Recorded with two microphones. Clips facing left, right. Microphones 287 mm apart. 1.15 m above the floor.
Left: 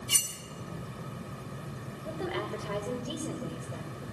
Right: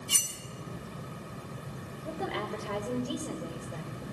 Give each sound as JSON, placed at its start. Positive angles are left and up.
{"t": 0.1, "sound": "cutlery clinking", "side_deg": 65, "distance_m": 3.0}
{"t": 2.0, "sound": "a woman speaking", "side_deg": 0, "distance_m": 5.5}